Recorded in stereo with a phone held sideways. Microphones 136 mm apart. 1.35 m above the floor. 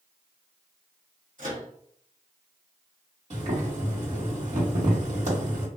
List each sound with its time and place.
1.4 s a microwave: 65° right (ahead or behind), 1.6 m
3.3 s boiling: 55° right (ahead or behind), 1.9 m